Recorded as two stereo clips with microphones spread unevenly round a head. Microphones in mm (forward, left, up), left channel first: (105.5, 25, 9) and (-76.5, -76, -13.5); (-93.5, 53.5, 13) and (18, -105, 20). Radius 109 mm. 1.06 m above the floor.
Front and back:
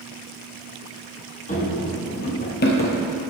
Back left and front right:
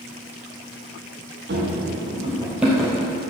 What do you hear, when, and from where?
1.5 s running footsteps: 15° right, 1.8 m; by 3.0 s 45° left, 1.5 m